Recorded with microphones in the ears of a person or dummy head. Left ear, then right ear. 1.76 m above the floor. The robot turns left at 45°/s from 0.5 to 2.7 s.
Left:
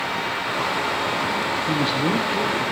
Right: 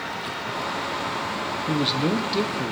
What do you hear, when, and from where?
1.7 s a man speaking: 10° right, 1.4 m; by 2.7 s 60° right, 1.4 m